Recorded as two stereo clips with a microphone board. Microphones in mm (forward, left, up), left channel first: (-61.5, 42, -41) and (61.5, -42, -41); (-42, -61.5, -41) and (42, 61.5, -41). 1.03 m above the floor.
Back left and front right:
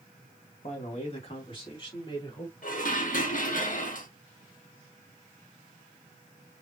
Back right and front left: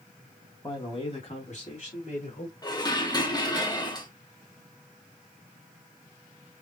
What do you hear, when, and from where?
0.6 s a man speaking: straight behind, 1.6 m; by 2.5 s 150° right, 3.5 m
2.6 s dishes clattering: 175° left, 1.2 m